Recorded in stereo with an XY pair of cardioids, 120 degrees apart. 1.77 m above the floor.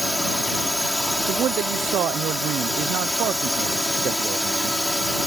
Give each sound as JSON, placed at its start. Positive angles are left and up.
{"t": 0.0, "sound": "a drone", "azimuth_deg": 5}
{"t": 1.3, "sound": "a man speaking", "azimuth_deg": -65}